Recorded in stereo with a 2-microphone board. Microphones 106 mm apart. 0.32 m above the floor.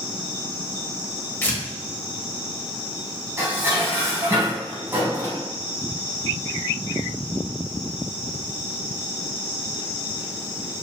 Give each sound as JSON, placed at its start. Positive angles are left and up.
{"t": 1.4, "sound": "tearing paper", "side_deg": 20, "distance_m": 0.8}
{"t": 3.4, "sound": "dishes clattering", "side_deg": -25, "distance_m": 1.5}